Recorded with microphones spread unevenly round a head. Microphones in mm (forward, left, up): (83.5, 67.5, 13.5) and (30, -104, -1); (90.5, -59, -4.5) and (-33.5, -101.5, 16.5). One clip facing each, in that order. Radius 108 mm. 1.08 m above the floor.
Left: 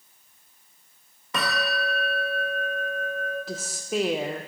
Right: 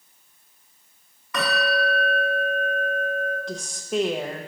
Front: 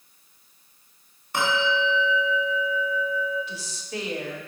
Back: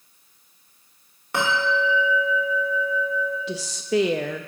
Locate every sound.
1.3 s a bell: 145° left, 1.8 m
3.5 s a woman speaking: 160° left, 0.5 m